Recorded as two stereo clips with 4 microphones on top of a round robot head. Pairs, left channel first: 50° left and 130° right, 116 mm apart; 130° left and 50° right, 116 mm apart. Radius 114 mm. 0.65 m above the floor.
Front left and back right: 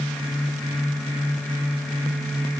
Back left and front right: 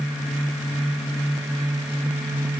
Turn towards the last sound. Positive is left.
No sound to turn to.